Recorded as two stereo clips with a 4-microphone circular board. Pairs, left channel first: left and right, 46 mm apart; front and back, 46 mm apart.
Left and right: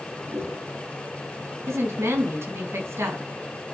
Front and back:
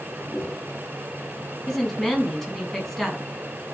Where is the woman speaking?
80° right, 4 m.